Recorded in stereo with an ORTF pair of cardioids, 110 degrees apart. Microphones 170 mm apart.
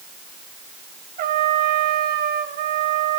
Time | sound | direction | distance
1.2 | a trumpet | 70° right | 3.5 m